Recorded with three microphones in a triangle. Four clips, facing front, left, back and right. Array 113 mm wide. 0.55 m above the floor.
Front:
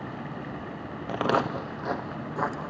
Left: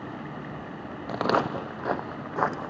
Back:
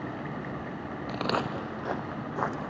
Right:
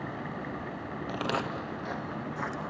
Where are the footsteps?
40° left, 0.6 m; by 2.7 s 90° left, 1.5 m.